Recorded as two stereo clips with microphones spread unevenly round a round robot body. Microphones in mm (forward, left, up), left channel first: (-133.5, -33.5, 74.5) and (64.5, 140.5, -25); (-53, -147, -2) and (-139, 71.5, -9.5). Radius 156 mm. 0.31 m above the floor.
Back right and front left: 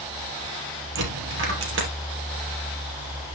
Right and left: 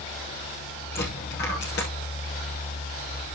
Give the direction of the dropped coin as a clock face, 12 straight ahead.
12 o'clock.